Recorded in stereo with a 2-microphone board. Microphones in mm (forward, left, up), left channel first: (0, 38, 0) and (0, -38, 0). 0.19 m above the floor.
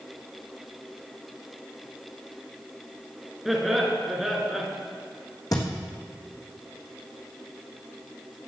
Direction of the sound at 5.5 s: 50° left (ahead or behind).